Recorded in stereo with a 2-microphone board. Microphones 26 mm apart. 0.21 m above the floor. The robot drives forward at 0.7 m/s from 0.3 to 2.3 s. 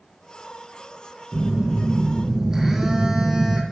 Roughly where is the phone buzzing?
Centre.